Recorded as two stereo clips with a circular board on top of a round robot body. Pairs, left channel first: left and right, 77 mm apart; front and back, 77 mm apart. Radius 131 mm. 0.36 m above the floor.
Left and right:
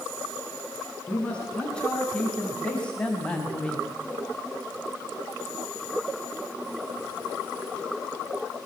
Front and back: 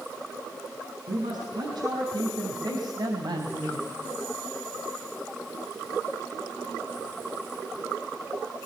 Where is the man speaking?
165° left, 6.5 m.